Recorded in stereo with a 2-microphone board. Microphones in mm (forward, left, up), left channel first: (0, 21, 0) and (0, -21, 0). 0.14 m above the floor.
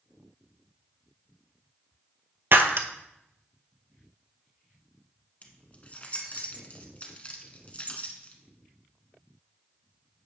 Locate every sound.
2.5 s breaking glass: 50° right (ahead or behind), 0.6 m
5.4 s keys jangling: 30° left (ahead or behind), 0.9 m